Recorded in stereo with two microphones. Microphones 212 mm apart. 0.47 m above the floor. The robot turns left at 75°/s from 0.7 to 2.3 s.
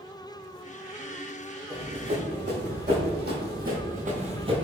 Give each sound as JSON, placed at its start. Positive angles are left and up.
{"t": 1.7, "sound": "running footsteps", "side_deg": -15, "distance_m": 2.0}